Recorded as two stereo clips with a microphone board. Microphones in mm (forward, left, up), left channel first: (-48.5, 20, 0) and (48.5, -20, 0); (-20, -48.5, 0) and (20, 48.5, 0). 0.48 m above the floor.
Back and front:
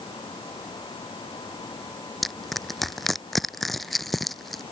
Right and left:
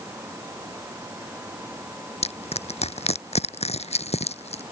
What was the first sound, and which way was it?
Crushing, 115° right.